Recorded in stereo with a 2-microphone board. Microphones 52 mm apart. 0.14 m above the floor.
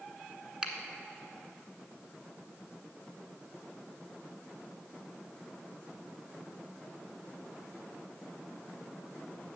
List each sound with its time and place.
0.6 s a finger snap: 15° right (ahead or behind), 1.2 m